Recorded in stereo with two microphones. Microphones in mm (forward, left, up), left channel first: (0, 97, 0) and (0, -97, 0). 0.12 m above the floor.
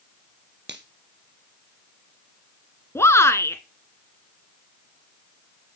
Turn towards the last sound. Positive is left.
turn(degrees=15)  # may be behind; listen again after turning